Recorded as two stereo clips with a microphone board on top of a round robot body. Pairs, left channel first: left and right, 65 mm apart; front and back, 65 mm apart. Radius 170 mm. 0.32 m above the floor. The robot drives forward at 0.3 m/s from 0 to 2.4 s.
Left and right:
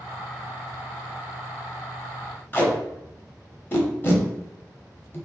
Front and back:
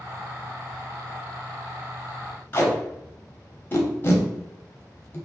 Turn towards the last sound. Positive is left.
turn(degrees=45)